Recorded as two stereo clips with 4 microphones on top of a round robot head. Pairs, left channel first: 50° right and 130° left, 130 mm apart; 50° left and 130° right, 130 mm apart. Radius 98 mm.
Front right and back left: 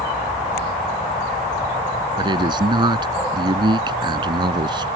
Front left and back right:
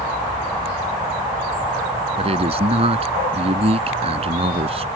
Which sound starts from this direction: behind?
A man speaking, at 2.2 s.